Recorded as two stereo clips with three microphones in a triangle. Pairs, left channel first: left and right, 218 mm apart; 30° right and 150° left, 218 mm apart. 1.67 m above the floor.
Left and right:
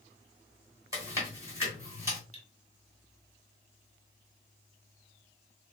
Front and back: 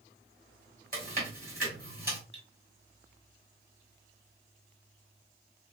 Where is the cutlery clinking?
140° left, 1.5 m.